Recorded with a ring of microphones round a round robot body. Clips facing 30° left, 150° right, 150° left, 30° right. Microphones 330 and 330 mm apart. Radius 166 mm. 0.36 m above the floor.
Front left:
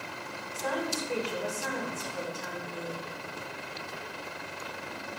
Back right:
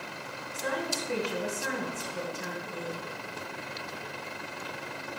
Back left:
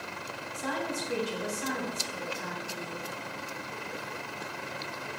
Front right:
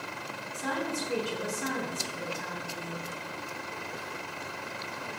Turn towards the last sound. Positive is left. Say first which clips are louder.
# front left 1 dB, front right 1 dB
turn(degrees=-80)